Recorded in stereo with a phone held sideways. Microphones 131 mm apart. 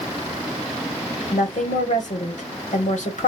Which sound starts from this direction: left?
A woman speaking, at 1.3 s.